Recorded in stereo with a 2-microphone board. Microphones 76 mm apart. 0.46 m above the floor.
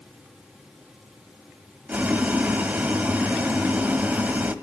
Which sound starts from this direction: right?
Boiling, at 1.9 s.